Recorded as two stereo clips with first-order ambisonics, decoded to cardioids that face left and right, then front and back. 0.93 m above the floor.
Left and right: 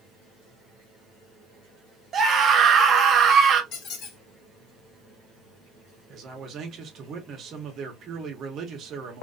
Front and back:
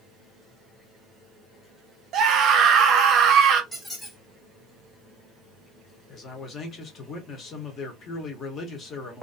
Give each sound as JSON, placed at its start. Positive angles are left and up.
{"t": 2.1, "sound": "a scream", "azimuth_deg": -145, "distance_m": 0.7}
{"t": 3.7, "sound": "a squeak", "azimuth_deg": 75, "distance_m": 1.0}
{"t": 6.1, "sound": "a man speaking", "azimuth_deg": -45, "distance_m": 0.8}